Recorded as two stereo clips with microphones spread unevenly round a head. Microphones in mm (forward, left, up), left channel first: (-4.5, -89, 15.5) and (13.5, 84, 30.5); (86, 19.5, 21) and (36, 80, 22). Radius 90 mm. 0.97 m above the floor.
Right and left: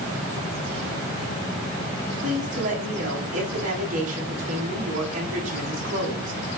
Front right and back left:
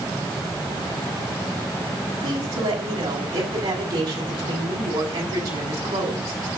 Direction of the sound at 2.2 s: 135° left.